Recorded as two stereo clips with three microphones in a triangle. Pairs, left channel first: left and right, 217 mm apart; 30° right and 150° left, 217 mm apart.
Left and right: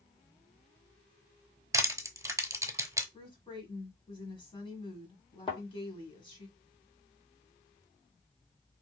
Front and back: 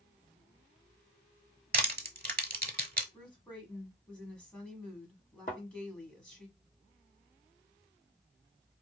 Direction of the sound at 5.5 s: 20° left.